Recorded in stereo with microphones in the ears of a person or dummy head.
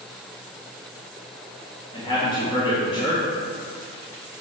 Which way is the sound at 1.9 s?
25° left (ahead or behind).